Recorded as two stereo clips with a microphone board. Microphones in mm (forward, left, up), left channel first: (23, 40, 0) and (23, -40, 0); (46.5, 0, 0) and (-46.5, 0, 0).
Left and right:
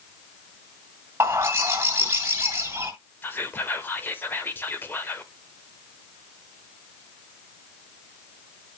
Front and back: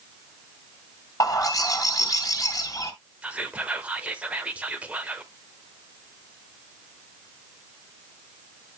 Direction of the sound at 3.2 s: 120° left.